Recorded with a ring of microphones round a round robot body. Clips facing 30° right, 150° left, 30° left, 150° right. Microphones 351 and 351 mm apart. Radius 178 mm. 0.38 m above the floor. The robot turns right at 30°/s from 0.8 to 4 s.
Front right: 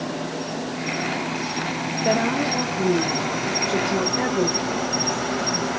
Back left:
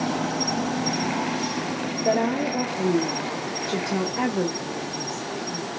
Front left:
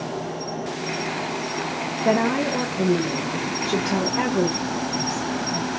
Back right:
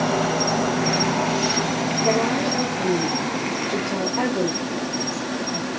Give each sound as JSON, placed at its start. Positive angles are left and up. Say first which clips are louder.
{"t": 0.0, "sound": "an insect", "louder": "back left 2 dB, back right 7 dB", "azimuth_deg": -140, "distance_m": 0.8}
{"t": 2.0, "sound": "a woman speaking", "louder": "front right 1 dB, front left 2 dB", "azimuth_deg": 10, "distance_m": 1.2}